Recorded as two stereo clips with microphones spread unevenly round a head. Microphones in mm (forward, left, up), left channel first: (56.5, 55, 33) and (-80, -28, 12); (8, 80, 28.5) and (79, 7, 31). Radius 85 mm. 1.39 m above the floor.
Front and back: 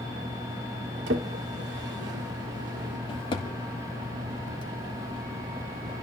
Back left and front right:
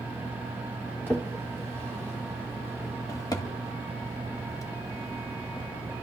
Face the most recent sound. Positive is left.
turn(degrees=85)